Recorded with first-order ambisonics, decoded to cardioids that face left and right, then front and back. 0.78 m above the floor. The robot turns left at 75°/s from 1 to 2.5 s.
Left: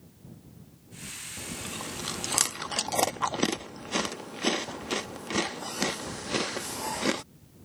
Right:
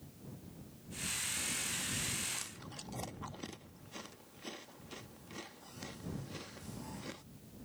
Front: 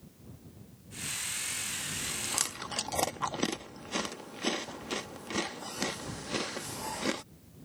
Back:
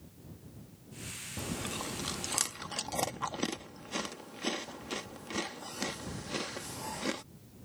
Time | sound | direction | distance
1.4 | chewing | 165° left | ?